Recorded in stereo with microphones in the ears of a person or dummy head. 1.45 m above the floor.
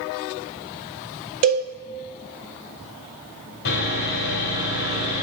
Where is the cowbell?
45° right (ahead or behind), 0.6 m.